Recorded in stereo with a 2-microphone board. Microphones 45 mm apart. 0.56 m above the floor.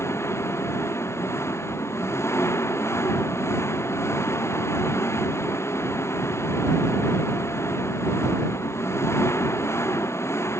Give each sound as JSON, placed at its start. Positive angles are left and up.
{"t": 0.0, "sound": "an engine running", "side_deg": 75}